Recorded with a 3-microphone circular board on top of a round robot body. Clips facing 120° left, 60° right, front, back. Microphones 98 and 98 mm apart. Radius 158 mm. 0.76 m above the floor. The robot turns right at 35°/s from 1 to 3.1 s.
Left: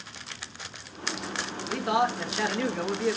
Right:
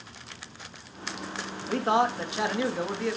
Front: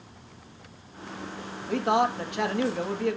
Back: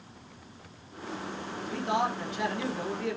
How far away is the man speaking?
About 1.7 m.